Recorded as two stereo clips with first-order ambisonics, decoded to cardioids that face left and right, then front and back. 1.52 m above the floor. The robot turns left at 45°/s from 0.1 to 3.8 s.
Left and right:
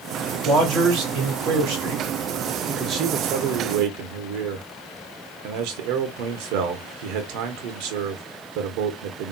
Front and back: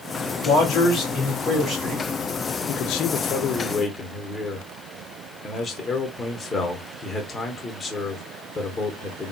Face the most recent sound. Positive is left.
turn(degrees=-80)